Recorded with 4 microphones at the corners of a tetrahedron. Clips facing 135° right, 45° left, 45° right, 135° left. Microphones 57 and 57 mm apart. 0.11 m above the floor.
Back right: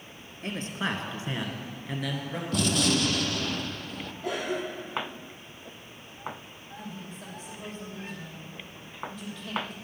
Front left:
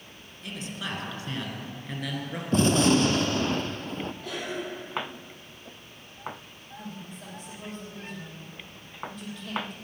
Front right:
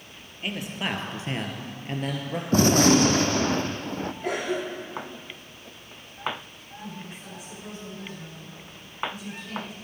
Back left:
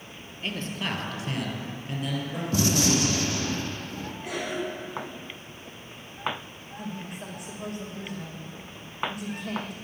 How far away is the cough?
About 4 m.